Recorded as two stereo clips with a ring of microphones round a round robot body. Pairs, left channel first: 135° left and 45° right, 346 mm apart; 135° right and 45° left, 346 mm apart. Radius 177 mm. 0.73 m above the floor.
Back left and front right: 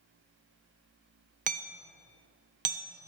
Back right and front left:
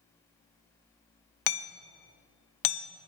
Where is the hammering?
115° right, 0.9 m.